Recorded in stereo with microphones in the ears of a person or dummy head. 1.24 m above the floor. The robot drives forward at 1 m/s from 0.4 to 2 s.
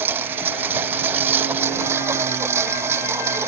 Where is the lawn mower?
10° right (ahead or behind).